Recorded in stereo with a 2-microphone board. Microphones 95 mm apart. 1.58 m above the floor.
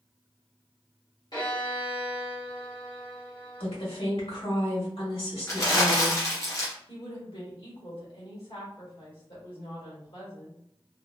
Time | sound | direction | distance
1.3 | a violin | 45° left (ahead or behind) | 1.6 m
3.6 | a woman speaking | 75° left (ahead or behind) | 1.6 m
5.5 | crumpling | 35° left (ahead or behind) | 0.9 m
6.9 | a woman speaking | 75° left (ahead or behind) | 1.8 m